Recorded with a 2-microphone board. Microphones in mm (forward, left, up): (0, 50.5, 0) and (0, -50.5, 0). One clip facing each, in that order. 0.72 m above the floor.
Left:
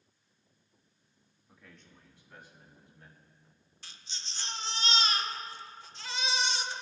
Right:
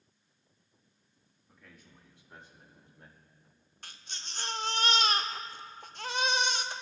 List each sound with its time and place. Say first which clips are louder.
1.5 s a man speaking: even; 10° left (ahead or behind), 1.1 m; by 3.2 s 35° right (ahead or behind), 2.5 m
3.8 s a baby crying: right 3 dB; 50° right (ahead or behind), 0.5 m